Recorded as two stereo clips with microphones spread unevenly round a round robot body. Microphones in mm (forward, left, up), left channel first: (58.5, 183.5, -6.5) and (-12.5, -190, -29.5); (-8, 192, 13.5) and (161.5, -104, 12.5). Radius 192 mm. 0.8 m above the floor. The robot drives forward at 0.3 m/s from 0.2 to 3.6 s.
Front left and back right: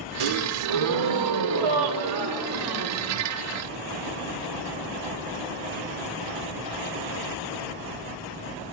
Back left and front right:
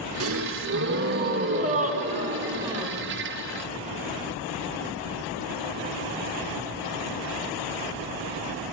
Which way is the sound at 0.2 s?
115° right.